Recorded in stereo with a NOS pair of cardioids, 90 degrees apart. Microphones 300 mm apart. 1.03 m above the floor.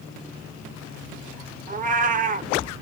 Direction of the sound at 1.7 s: 25° right.